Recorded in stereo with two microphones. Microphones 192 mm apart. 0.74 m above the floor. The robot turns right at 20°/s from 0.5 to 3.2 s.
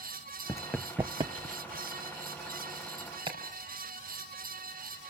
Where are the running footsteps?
20° left (ahead or behind), 0.7 m; by 2.0 s 60° right (ahead or behind), 1.3 m.